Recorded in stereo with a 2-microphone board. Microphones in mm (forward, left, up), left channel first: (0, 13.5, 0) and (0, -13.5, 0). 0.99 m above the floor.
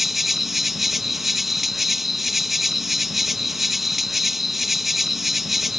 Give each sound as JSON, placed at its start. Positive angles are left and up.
{"t": 0.0, "sound": "an insect", "side_deg": -10}